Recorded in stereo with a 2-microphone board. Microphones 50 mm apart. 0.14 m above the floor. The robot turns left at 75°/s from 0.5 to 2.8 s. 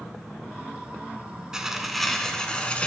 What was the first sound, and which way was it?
Tearing paper, 15° right (ahead or behind).